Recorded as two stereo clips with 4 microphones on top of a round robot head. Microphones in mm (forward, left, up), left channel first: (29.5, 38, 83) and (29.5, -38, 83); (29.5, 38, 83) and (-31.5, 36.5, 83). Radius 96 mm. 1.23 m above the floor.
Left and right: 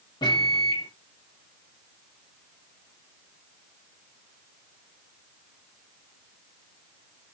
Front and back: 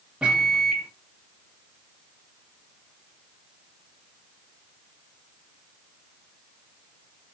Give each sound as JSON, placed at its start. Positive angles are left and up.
{"t": 0.2, "sound": "a microwave", "azimuth_deg": 105, "distance_m": 1.8}